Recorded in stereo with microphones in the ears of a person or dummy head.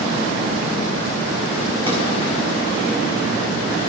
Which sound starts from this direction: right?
A drawer, at 1.9 s.